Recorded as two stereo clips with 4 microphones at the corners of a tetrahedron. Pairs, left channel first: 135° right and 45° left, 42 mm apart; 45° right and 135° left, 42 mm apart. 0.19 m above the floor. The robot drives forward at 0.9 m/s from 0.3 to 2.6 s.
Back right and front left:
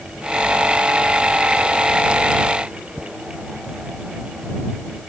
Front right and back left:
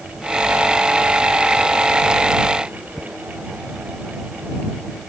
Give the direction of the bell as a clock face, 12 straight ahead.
I don't hear a bell.